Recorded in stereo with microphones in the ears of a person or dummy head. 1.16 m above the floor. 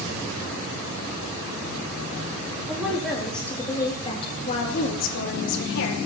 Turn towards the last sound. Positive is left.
turn(degrees=70)  # may be behind; listen again after turning